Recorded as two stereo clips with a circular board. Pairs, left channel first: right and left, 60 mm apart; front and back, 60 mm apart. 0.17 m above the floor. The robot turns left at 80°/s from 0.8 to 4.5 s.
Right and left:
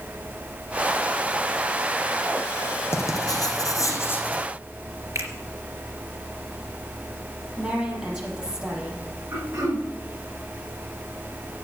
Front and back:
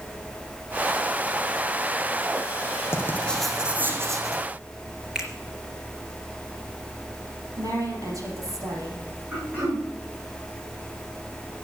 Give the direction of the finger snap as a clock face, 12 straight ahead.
9 o'clock.